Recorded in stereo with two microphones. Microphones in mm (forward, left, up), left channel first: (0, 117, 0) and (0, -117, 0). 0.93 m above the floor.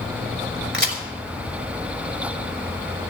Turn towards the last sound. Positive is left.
turn(degrees=-60)  # may be behind; listen again after turning